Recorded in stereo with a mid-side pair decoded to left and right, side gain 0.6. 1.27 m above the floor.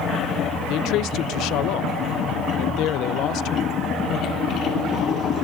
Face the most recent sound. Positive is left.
turn(degrees=65)